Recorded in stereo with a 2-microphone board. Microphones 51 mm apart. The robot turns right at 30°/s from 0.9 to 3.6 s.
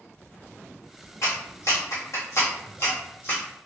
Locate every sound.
1.2 s a clap: 70° left (ahead or behind), 1.4 m; by 3.4 s 35° left (ahead or behind), 1.4 m